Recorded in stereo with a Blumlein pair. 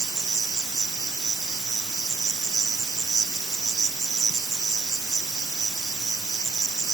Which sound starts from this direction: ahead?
An insect, at 0.0 s.